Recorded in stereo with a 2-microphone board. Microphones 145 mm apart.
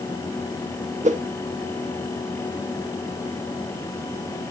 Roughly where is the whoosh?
Right.